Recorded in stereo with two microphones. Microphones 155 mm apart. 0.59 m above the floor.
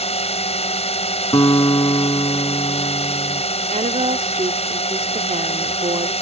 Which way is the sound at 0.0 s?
45° left (ahead or behind).